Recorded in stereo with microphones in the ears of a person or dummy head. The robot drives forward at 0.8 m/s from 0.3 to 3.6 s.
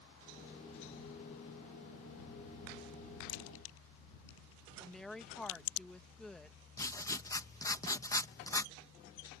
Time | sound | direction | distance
3.3 | a crack | 65° left (ahead or behind) | ?
4.8 | a woman speaking | 5° left (ahead or behind) | ?
6.8 | writing | 20° left (ahead or behind) | ?